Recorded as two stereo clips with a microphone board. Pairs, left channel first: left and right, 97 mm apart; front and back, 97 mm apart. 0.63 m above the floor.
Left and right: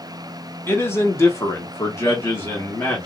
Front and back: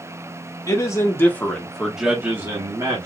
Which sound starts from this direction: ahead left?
A man speaking, at 0.7 s.